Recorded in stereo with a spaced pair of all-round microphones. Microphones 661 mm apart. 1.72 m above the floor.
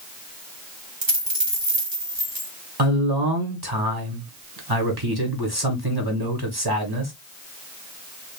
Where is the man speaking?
35° right (ahead or behind), 1.6 m.